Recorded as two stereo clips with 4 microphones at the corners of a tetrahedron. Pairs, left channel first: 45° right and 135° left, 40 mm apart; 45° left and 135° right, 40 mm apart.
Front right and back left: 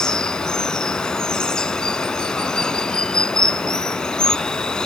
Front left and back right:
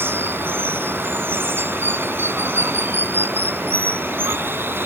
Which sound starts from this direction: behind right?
Running water, at 0.0 s.